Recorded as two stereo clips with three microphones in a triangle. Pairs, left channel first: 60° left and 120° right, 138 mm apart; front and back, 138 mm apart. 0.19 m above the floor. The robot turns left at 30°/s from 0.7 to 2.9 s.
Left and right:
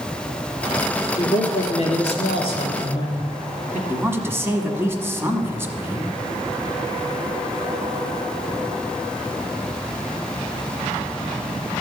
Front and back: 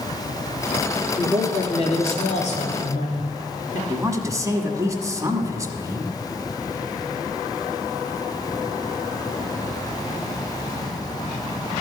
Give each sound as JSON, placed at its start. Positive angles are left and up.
{"t": 1.2, "sound": "a man speaking", "azimuth_deg": 55, "distance_m": 2.5}
{"t": 3.9, "sound": "a woman speaking", "azimuth_deg": -165, "distance_m": 1.1}